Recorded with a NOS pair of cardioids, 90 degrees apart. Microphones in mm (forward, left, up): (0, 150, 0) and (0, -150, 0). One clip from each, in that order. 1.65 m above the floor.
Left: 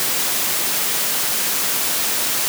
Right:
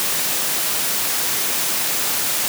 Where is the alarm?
I don't hear an alarm.